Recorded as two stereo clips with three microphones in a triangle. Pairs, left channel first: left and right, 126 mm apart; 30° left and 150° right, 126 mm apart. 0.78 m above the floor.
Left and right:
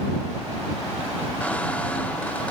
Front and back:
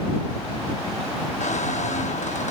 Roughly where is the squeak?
Ahead.